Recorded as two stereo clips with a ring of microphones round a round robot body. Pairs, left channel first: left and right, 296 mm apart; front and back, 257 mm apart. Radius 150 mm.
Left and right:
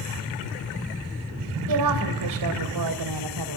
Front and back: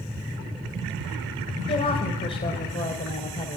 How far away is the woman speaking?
About 2.5 m.